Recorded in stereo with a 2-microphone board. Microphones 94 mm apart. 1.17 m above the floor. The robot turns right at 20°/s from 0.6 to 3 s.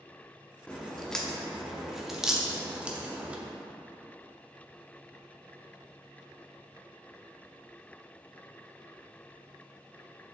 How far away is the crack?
About 0.7 m.